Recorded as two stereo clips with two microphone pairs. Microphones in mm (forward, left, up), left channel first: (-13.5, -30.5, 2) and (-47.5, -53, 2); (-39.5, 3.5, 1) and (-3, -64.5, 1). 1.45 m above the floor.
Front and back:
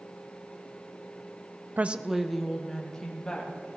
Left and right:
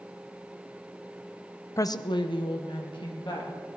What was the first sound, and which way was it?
A woman speaking, 175° left.